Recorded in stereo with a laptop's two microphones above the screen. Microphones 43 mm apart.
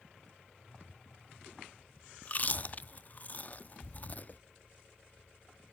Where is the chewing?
40° left (ahead or behind), 0.6 m.